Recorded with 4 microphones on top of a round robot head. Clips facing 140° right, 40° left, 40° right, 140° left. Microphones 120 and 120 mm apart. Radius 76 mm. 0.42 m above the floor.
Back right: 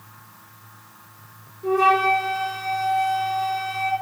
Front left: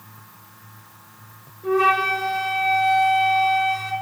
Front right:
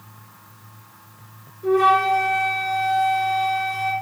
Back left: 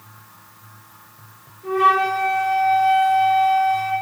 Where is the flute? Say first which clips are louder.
Back right 1 dB, front right 1 dB; 85° right, 4 m.